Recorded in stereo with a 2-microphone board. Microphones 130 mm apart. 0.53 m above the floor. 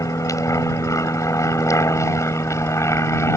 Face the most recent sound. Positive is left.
turn(degrees=20)  # may be behind; listen again after turning